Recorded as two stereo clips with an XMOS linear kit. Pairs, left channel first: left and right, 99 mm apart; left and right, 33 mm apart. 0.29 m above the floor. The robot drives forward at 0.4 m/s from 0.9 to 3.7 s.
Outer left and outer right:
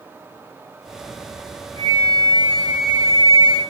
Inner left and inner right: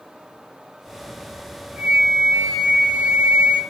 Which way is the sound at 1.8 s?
45° right (ahead or behind).